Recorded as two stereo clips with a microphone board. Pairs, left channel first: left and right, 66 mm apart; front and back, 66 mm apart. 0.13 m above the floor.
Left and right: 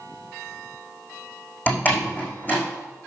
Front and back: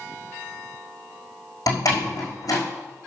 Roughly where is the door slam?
Ahead left.